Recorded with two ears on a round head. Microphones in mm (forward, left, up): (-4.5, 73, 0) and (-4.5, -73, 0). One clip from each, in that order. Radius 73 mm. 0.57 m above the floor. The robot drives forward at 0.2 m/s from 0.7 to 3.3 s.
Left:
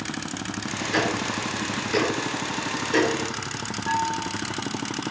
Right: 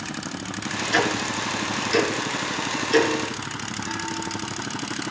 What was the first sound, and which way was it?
Ticking, 65° right (ahead or behind).